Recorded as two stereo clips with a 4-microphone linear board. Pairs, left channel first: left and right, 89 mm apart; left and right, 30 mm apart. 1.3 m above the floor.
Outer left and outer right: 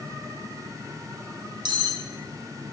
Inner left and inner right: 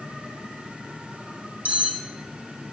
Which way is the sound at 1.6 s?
60° right (ahead or behind).